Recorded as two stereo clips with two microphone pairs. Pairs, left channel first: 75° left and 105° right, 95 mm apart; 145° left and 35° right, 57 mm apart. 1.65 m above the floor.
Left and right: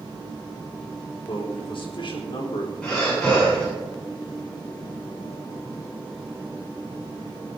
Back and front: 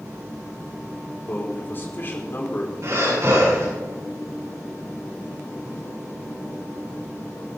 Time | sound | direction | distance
1.3 | a man speaking | 95° left | 4 m
2.8 | breathing | 10° right | 8 m